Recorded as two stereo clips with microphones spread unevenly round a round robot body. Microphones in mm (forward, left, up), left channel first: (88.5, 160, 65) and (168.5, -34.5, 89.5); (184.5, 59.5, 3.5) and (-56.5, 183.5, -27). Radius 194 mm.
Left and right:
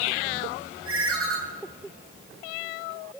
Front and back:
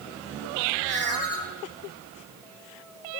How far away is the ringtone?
About 3 m.